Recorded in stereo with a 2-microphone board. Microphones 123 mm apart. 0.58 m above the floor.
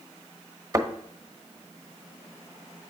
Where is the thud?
30° right (ahead or behind), 1.3 m.